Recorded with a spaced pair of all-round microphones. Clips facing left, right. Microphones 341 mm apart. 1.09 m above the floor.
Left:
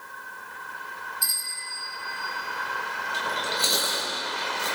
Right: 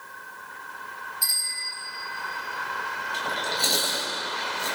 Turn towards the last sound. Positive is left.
turn(degrees=10)  # may be behind; listen again after turning